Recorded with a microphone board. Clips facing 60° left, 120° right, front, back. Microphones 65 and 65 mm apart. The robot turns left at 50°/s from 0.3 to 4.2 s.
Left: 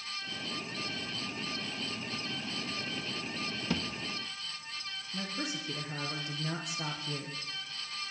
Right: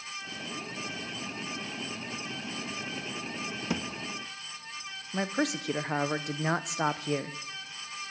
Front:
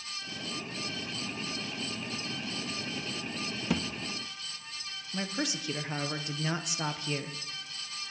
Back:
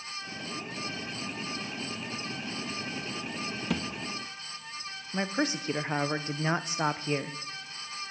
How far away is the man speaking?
About 0.8 m.